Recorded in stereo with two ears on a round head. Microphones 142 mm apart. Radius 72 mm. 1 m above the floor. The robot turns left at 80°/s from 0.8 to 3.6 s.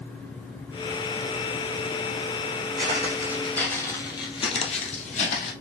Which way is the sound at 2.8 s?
55° right (ahead or behind).